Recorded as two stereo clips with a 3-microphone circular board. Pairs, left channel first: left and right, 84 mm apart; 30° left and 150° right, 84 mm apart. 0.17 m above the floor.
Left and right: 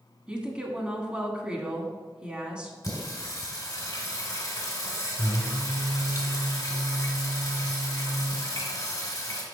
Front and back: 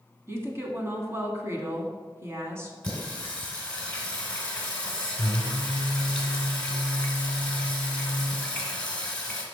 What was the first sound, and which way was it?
A woman speaking, 155° right.